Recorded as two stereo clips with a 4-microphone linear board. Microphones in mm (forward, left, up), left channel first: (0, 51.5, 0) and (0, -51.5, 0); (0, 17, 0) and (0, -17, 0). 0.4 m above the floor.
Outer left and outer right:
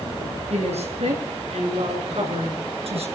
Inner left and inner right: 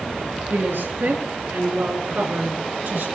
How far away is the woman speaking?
About 5.5 m.